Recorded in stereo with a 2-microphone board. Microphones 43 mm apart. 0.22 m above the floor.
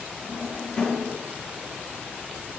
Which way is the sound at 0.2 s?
15° left (ahead or behind).